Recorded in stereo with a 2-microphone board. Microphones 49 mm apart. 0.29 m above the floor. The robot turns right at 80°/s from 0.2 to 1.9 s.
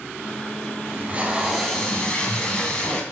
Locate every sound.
0.9 s tape being pulled: 65° right, 2.5 m; by 3.0 s 20° left, 2.5 m